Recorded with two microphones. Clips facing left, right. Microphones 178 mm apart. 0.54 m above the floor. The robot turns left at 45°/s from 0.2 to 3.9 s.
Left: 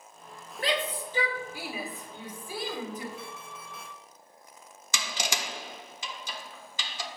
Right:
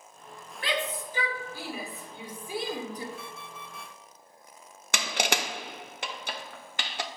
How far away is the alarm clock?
About 1.9 m.